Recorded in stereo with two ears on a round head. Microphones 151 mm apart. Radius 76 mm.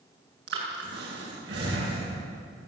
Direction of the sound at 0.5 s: 70° right (ahead or behind).